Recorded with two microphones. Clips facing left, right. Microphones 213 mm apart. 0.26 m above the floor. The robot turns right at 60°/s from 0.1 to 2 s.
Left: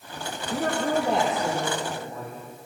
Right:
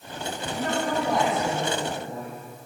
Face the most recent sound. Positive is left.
turn(degrees=-155)